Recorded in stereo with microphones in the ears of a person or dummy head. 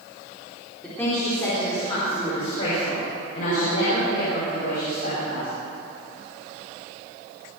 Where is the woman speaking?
15° left (ahead or behind), 4 m; by 5.5 s 60° left (ahead or behind), 9 m.